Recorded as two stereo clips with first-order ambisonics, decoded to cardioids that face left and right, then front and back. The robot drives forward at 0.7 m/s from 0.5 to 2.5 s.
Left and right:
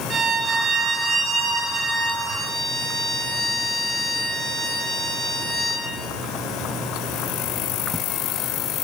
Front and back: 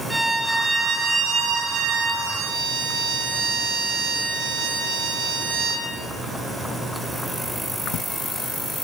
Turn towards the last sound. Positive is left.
turn(degrees=-170)